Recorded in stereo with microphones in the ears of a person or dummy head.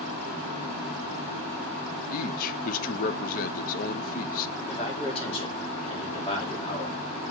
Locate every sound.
2.1 s a man speaking: 45° left (ahead or behind), 0.8 m
4.7 s a man speaking: 30° left (ahead or behind), 4 m